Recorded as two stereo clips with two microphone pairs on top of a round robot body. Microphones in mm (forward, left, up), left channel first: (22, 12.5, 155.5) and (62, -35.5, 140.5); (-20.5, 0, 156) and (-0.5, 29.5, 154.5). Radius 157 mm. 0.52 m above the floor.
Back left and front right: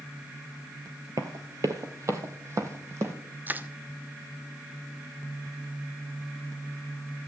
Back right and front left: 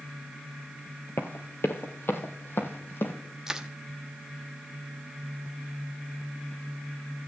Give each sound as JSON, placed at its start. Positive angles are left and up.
{"t": 1.2, "sound": "running footsteps", "azimuth_deg": -100, "distance_m": 0.6}
{"t": 3.5, "sound": "crushing", "azimuth_deg": -15, "distance_m": 1.1}